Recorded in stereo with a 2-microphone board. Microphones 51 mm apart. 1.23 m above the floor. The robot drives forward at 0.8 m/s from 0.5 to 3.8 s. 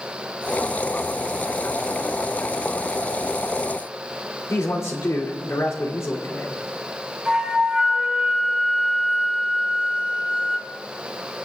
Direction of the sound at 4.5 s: 80° left.